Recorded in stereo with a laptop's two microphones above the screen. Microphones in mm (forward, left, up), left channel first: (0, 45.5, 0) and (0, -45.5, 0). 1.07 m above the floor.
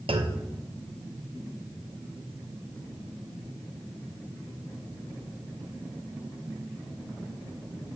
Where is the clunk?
75° right (ahead or behind), 0.6 m.